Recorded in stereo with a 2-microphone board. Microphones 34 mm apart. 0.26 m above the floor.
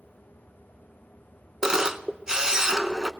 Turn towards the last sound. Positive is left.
turn(degrees=-20)  # may be behind; listen again after turning